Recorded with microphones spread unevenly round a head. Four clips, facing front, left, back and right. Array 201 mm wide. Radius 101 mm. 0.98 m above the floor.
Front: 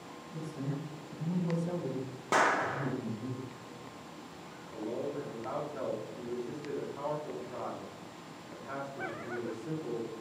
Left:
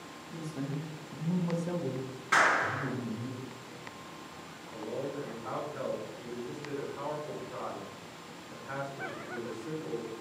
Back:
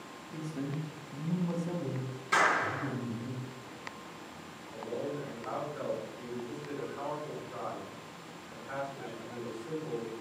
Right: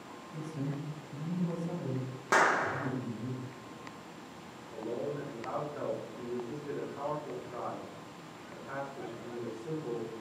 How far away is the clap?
About 0.5 m.